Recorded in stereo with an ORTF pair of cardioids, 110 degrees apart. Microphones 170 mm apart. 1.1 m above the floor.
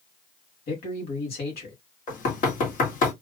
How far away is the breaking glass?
No breaking glass in this recording.